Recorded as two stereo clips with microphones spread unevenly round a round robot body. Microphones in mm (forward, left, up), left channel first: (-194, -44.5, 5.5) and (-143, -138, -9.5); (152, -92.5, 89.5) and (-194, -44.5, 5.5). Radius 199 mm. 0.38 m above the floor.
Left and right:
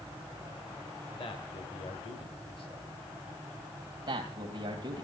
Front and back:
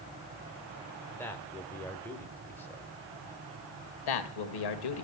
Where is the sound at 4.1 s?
15° right, 2.5 m.